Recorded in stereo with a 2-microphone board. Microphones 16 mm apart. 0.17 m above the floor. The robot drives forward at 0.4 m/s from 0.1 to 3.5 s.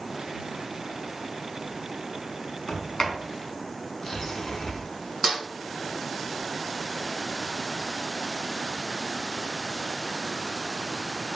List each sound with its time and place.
2.7 s a sliding door: 40° left (ahead or behind), 0.5 m; by 4.8 s 35° left (ahead or behind), 0.6 m
5.2 s a snare drum: 20° right (ahead or behind), 1.6 m